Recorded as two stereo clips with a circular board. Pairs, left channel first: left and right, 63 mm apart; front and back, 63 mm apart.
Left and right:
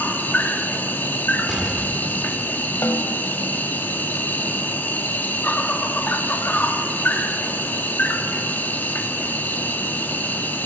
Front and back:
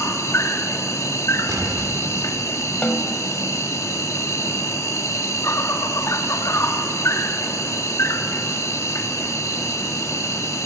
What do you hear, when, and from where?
0.0 s an insect: 30° left, 1.3 m
1.5 s an explosion: 165° right, 1.5 m
2.8 s a snare drum: 70° left, 1.4 m